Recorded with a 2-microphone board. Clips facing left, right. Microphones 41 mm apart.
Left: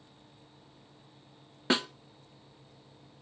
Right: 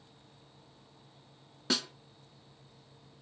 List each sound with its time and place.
1.7 s a snare drum: 30° left (ahead or behind), 0.5 m